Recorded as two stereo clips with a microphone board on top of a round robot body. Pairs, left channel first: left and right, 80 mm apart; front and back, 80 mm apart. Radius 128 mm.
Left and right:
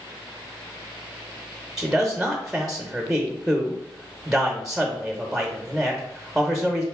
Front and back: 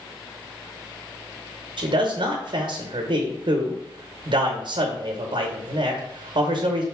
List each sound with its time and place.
1.8 s a man speaking: 175° right, 0.8 m